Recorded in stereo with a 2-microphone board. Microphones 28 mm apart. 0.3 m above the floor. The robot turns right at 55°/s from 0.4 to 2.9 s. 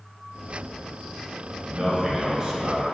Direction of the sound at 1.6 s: 20° right (ahead or behind).